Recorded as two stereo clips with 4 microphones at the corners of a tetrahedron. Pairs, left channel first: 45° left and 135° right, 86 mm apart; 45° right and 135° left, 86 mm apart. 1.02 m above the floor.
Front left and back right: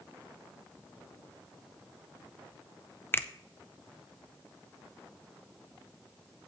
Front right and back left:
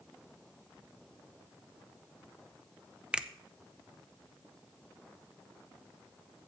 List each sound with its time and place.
3.1 s a finger snap: 75° left, 0.5 m